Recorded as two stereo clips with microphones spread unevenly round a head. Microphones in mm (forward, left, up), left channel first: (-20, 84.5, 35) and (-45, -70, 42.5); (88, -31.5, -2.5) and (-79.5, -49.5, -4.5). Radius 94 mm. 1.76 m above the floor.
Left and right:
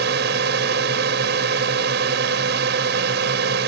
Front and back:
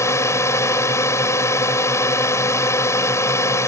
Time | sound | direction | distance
0.0 | a drone | 70° right | ?